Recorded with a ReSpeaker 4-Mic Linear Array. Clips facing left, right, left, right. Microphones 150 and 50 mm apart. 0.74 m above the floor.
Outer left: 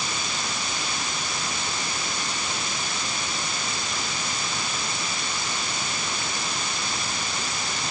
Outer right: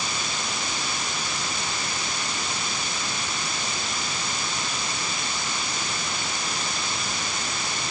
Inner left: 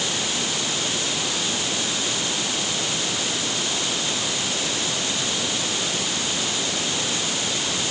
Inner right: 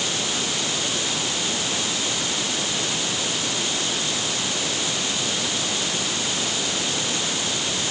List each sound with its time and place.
Only background noise.